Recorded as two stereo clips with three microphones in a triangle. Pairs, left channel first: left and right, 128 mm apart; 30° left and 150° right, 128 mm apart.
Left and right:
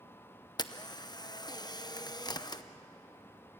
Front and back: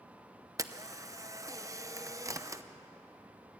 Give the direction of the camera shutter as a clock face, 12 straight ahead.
7 o'clock.